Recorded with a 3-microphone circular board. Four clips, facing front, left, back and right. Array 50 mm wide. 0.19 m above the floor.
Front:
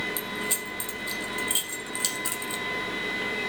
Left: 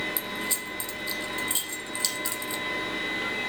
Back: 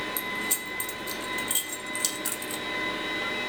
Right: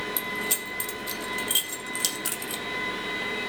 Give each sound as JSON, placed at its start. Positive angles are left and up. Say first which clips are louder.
{"t": 0.2, "sound": "keys jangling", "louder": "right 2 dB, even", "azimuth_deg": -70, "distance_m": 4.0}